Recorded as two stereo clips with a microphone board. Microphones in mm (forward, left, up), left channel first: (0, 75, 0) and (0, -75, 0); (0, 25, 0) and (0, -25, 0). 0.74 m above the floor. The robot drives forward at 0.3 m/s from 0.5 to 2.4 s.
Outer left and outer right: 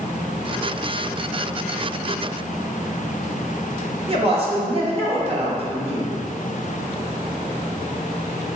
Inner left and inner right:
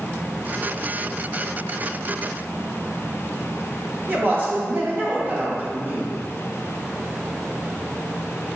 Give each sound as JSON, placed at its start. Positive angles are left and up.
{"t": 4.1, "sound": "a woman speaking", "side_deg": -40, "distance_m": 0.9}